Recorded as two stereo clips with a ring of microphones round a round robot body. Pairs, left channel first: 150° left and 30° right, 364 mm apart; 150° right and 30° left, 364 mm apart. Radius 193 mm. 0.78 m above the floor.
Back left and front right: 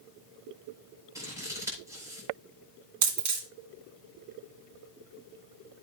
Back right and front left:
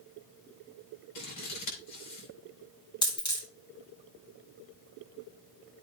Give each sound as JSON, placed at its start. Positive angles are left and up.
{"t": 1.1, "sound": "scissors", "azimuth_deg": -110, "distance_m": 4.5}
{"t": 3.0, "sound": "a dropped coin", "azimuth_deg": -70, "distance_m": 2.5}